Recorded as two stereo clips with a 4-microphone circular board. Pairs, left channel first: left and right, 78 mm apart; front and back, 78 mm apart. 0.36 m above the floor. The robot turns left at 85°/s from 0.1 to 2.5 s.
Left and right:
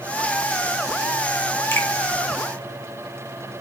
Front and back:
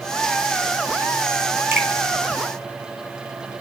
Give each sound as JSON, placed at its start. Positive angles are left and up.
{"t": 1.7, "sound": "a finger snap", "azimuth_deg": 130, "distance_m": 1.1}